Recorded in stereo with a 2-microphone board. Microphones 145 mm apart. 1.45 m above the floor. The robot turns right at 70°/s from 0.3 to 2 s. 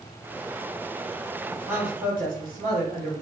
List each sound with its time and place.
1.7 s a man speaking: 50° right (ahead or behind), 1.2 m; by 3.1 s 70° right (ahead or behind), 1.2 m